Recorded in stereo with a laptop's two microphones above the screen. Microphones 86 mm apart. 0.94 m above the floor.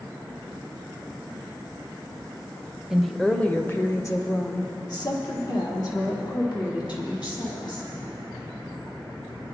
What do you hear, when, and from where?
2.9 s a woman speaking: 5° right (ahead or behind), 0.8 m; by 7.9 s 65° left (ahead or behind), 4 m